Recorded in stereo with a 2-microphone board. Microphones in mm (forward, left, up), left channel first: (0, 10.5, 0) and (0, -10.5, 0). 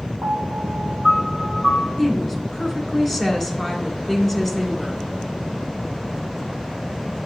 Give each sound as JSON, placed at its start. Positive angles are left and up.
{"t": 0.2, "sound": "a piano", "side_deg": 60, "distance_m": 4.5}
{"t": 2.0, "sound": "a woman speaking", "side_deg": 15, "distance_m": 2.0}